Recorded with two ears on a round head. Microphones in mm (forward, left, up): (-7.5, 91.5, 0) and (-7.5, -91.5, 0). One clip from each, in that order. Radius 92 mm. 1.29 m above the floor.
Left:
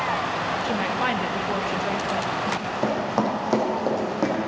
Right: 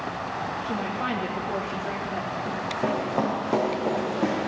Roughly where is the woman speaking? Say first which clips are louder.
Left 4 dB; left.